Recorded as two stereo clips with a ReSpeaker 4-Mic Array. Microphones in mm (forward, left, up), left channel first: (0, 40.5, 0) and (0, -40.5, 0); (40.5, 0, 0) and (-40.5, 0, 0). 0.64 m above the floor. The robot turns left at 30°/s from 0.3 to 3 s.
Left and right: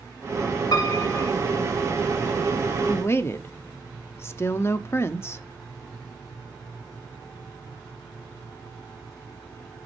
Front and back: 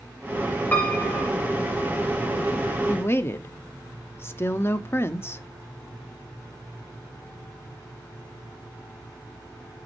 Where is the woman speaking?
45° left, 0.8 m.